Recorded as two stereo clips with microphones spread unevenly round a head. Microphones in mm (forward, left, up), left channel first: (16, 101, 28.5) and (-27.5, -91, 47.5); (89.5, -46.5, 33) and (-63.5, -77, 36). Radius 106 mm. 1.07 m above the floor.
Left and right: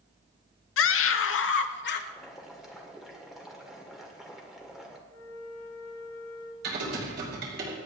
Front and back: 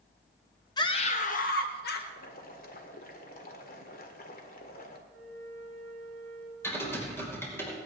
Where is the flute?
50° left, 2.5 m.